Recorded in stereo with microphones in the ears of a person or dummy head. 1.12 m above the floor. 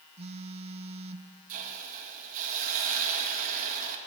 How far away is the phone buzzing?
About 0.5 m.